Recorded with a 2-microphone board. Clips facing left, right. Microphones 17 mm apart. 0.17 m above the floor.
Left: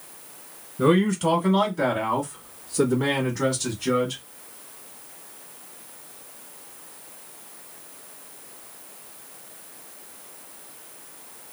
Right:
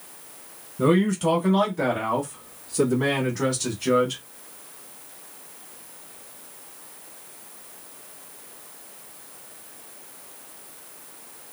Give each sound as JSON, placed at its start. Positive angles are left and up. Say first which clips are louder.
{"t": 0.8, "sound": "a man speaking", "louder": "even", "side_deg": 15, "distance_m": 1.8}